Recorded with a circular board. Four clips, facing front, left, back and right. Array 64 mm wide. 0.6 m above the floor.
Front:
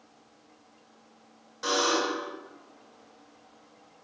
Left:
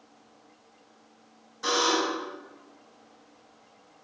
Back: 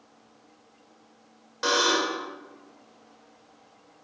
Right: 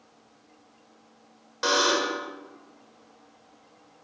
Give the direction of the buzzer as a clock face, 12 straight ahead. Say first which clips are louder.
Right 2 dB, back 2 dB; 4 o'clock.